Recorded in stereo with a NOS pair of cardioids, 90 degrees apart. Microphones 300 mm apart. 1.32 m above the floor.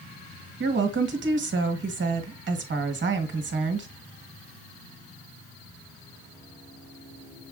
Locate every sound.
0.6 s a woman speaking: 40° right, 1.3 m